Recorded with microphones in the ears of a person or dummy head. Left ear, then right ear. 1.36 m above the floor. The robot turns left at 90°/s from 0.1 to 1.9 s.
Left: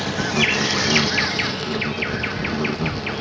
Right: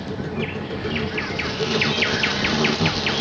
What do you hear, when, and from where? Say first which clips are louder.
0.0 s an insect: left 8 dB; 135° left; by 3.2 s 25° right